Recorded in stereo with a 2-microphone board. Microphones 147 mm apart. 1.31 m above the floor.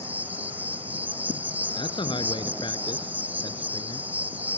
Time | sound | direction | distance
0.0 | an insect | 10° right (ahead or behind) | ?
1.8 | a man speaking | 35° left (ahead or behind) | ?